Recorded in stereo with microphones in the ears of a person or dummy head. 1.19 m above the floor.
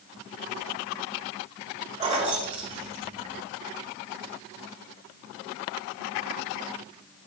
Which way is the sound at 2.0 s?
25° right (ahead or behind).